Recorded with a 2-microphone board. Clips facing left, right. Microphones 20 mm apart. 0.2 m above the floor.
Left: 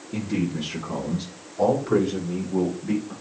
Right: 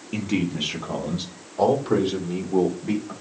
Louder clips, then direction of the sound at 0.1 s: Right 1 dB; 60° right (ahead or behind).